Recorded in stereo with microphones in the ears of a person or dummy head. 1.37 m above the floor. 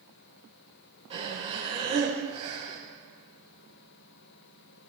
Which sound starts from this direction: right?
Breathing, at 1.1 s.